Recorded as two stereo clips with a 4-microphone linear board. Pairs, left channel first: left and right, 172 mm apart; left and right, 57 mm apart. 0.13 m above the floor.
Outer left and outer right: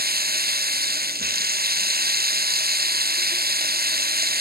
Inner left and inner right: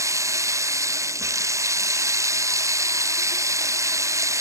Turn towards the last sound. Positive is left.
turn(degrees=-65)  # may be behind; listen again after turning